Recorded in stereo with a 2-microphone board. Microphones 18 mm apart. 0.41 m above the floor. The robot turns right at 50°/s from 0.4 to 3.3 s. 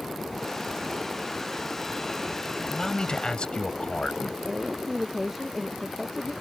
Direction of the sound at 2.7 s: 40° left.